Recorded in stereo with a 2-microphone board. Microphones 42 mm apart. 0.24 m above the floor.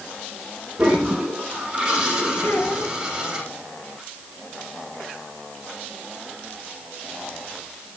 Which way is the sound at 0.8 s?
20° right (ahead or behind).